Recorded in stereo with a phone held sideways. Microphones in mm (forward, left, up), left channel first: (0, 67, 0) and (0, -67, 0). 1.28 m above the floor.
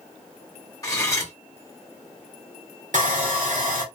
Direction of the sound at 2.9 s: 70° right (ahead or behind).